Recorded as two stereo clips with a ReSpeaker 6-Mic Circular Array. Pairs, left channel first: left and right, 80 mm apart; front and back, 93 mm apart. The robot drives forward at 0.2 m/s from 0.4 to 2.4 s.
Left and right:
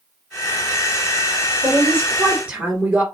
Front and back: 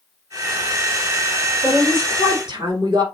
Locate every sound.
1.6 s a woman speaking: 155° right, 2 m; by 3.0 s 160° right, 2 m